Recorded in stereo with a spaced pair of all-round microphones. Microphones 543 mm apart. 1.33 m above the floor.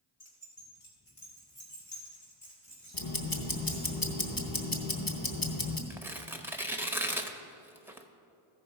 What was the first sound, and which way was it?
Keys jangling, 70° left (ahead or behind).